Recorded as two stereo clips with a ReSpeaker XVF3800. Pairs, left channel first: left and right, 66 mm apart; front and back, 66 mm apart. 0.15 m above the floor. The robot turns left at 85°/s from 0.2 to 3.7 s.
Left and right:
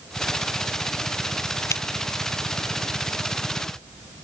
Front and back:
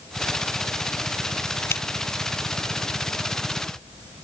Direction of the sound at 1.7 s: 50° left.